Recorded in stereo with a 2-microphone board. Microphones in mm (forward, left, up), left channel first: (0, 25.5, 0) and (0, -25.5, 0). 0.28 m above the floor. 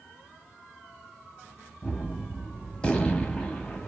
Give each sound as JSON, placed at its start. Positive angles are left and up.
{"t": 1.8, "sound": "a gunshot", "side_deg": 20, "distance_m": 0.7}